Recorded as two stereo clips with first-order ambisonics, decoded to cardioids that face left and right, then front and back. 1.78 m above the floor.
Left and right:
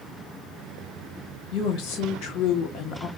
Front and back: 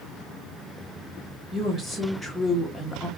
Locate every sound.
1.5 s a woman speaking: 90° left, 1.4 m; by 3.1 s 60° left, 0.5 m